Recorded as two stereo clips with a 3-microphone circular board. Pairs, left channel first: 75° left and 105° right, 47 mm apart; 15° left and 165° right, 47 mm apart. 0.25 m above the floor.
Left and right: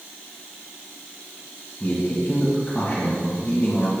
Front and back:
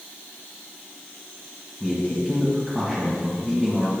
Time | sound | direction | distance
1.8 | a man speaking | 125° left | 1.7 m